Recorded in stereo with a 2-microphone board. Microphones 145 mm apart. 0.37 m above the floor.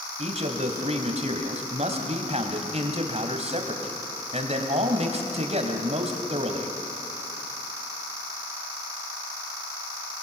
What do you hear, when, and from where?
0.2 s a man speaking: 50° right (ahead or behind), 3 m